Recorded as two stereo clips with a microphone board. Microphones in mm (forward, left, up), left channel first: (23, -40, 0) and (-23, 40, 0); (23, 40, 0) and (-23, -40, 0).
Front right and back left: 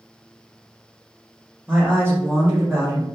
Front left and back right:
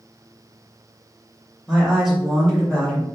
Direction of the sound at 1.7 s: 170° left.